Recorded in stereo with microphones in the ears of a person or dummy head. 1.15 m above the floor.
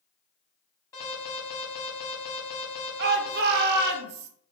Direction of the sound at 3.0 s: 55° right (ahead or behind).